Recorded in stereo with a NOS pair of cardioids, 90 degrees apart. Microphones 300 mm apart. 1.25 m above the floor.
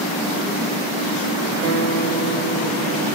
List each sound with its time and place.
1.6 s a guitar: 55° right, 2.0 m